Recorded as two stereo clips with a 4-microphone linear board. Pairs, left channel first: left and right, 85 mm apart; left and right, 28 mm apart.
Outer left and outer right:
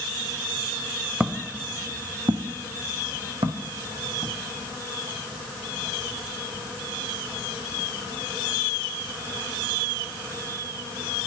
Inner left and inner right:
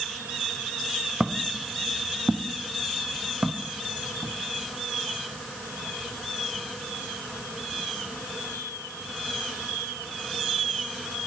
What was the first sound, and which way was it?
Footsteps, 10° right (ahead or behind).